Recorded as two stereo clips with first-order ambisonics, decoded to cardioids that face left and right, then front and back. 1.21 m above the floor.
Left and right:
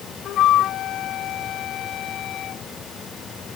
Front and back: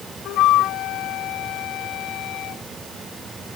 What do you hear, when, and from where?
0.2 s a flute: 40° left